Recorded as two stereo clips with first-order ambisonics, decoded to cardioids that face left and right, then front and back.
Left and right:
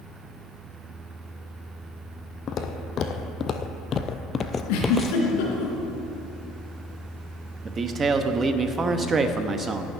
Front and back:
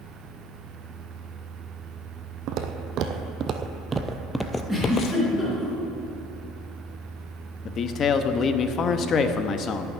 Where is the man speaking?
35° right, 0.7 m.